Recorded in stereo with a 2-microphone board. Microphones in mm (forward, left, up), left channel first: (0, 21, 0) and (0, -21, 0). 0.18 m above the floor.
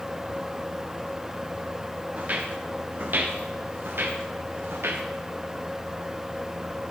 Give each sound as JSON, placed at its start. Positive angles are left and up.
{"t": 2.2, "sound": "footsteps", "side_deg": -40, "distance_m": 2.5}